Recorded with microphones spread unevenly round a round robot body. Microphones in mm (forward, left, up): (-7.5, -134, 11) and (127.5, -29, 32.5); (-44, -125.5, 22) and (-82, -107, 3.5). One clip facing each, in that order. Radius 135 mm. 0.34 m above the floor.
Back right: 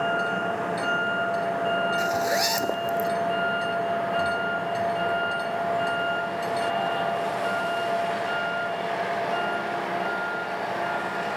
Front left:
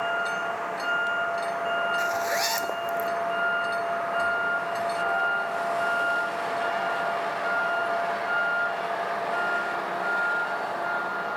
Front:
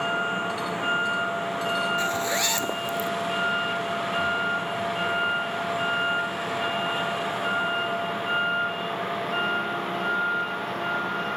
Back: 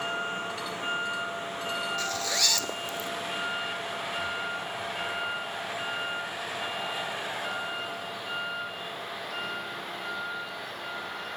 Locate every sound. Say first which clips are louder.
0.0 s a vehicle: back right 4 dB, front 6 dB; 90° right; by 11.4 s 70° right
2.0 s a zipper: back right 3 dB, front 5 dB; 90° right